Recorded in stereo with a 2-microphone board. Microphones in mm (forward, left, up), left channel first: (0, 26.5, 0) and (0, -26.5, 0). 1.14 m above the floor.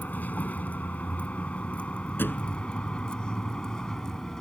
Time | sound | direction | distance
0.0 | a vehicle | 35° left (ahead or behind) | ?
2.2 | a thud | 40° left (ahead or behind) | ?